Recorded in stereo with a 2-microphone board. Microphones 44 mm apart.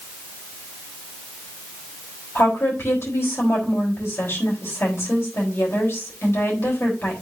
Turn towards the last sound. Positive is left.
turn(degrees=65)  # may be behind; listen again after turning